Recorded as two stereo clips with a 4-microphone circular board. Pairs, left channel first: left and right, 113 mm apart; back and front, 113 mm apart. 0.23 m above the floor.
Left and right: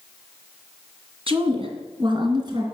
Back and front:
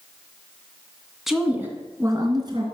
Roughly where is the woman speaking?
Right.